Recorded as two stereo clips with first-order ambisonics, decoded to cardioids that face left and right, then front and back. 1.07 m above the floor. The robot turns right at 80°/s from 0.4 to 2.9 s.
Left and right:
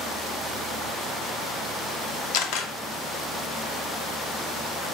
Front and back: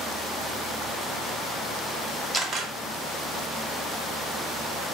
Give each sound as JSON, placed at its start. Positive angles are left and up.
{"t": 2.3, "sound": "a camera shutter", "azimuth_deg": 90, "distance_m": 0.6}